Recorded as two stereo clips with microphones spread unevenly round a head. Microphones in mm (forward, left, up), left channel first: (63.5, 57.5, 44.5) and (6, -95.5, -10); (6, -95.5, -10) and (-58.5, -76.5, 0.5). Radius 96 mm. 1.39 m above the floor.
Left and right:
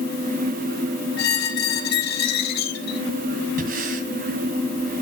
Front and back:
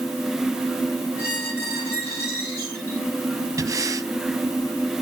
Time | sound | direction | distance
1.2 | a squeak | 55° left | 2.5 m
3.6 | breathing | 160° right | 1.6 m